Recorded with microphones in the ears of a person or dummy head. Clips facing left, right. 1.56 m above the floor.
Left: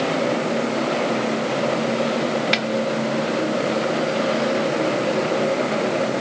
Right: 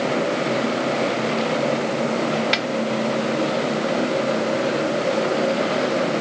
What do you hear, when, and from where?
2.5 s a snare drum: centre (ahead or behind)